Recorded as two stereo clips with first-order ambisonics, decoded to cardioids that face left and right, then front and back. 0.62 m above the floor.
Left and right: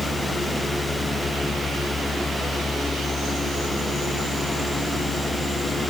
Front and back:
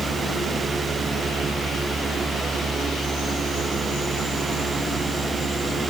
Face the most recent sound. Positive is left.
No sound to turn to.